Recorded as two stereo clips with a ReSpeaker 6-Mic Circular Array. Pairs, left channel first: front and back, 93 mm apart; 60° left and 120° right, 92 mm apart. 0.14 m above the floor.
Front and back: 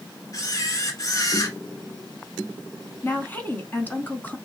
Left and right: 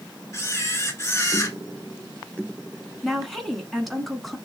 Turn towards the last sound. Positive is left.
turn(degrees=-30)